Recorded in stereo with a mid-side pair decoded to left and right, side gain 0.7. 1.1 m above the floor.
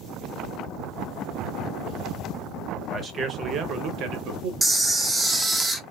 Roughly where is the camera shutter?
Ahead.